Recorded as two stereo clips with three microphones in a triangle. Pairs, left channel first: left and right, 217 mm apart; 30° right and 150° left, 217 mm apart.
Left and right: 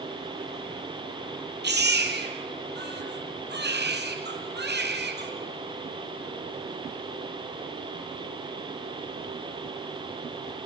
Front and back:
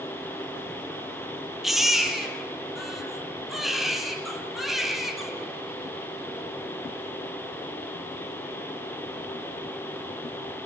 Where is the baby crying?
120° right, 3 m.